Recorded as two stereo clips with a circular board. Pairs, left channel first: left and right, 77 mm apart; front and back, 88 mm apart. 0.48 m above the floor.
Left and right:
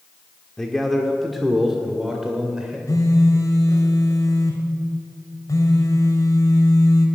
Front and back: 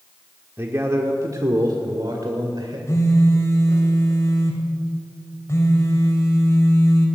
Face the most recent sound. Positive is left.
turn(degrees=55)